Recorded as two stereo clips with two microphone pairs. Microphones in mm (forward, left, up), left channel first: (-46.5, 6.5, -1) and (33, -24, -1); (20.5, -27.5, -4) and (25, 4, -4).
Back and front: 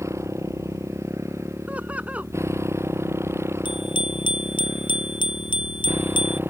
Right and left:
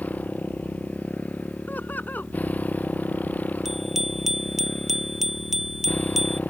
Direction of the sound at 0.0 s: 75° right.